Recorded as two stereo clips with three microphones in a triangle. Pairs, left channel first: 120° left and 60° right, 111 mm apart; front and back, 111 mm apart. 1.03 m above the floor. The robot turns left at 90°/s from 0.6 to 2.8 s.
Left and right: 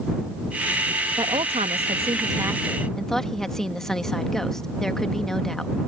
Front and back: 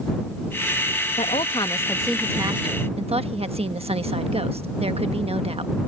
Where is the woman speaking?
10° right; by 5.8 s 155° right.